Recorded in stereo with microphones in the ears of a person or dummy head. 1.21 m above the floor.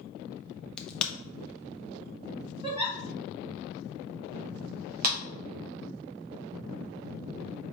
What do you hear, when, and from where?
0.8 s a crack: 10° left (ahead or behind), 0.5 m
2.6 s a giggle: 30° right (ahead or behind), 1.3 m
5.0 s a clap: 50° right (ahead or behind), 0.9 m